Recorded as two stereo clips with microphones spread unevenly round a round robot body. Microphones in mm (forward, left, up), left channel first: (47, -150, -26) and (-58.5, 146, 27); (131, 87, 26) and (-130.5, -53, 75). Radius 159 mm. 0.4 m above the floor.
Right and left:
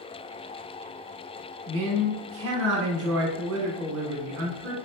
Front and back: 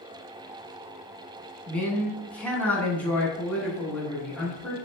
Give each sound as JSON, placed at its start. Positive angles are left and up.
{"t": 1.7, "sound": "a man speaking", "azimuth_deg": 95, "distance_m": 0.9}